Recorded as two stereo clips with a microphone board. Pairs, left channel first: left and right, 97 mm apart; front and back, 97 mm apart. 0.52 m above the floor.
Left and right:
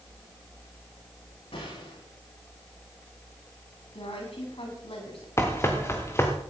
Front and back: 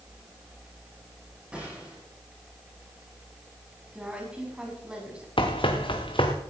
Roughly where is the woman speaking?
Left.